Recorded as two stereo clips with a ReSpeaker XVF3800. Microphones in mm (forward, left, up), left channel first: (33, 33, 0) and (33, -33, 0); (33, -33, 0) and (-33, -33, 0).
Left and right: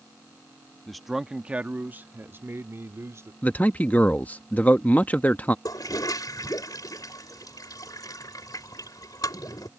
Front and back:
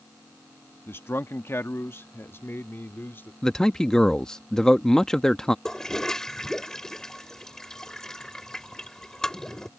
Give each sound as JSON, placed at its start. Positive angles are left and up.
{"t": 0.9, "sound": "a man speaking", "azimuth_deg": 5}
{"t": 3.4, "sound": "a man speaking", "azimuth_deg": 70}
{"t": 5.7, "sound": "a toilet flushing", "azimuth_deg": 85}